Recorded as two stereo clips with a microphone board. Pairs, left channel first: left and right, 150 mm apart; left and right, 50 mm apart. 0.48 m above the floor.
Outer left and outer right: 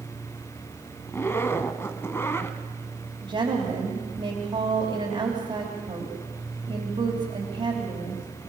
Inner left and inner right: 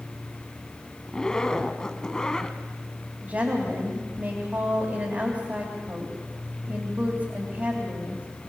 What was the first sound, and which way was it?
A zipper, 15° left (ahead or behind).